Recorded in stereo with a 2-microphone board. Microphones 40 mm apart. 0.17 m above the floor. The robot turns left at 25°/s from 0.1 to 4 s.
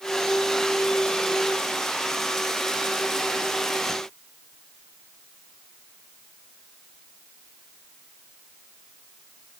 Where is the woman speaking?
I don't hear a woman speaking.